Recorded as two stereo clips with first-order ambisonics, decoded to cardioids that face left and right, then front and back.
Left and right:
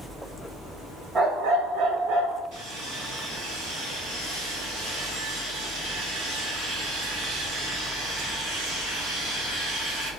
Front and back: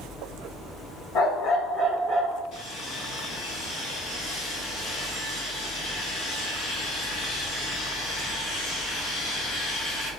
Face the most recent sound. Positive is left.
turn(degrees=-50)